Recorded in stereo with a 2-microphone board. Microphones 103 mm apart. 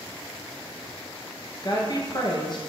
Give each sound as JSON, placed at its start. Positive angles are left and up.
{"t": 1.6, "sound": "a woman speaking", "side_deg": 45, "distance_m": 1.5}